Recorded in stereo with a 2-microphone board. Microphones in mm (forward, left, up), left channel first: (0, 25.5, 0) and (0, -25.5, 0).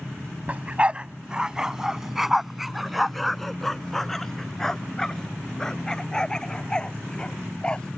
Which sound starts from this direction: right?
A dog barking, at 0.5 s.